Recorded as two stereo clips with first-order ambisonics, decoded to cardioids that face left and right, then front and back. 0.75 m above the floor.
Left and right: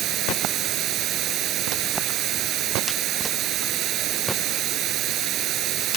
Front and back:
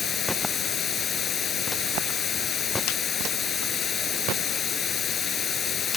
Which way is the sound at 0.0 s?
60° right.